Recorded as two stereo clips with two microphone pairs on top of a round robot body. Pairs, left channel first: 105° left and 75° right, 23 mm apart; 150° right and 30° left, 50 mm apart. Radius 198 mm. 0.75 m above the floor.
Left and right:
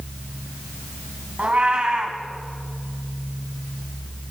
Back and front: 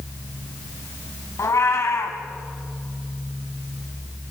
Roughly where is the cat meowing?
Behind right.